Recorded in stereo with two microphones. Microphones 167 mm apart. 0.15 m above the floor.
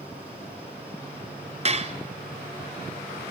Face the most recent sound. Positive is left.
turn(degrees=-40)  # may be behind; listen again after turning